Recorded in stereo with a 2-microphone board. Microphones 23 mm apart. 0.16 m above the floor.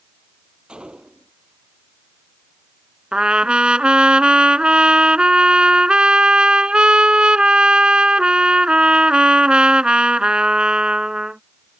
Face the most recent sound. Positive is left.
turn(degrees=-45)  # may be behind; listen again after turning